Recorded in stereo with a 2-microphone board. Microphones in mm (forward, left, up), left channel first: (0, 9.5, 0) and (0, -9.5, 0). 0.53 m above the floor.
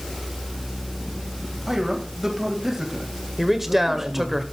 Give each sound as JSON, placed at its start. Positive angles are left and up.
{"t": 1.7, "sound": "a man speaking", "side_deg": -15, "distance_m": 3.0}
{"t": 3.4, "sound": "a man speaking", "side_deg": -15, "distance_m": 1.8}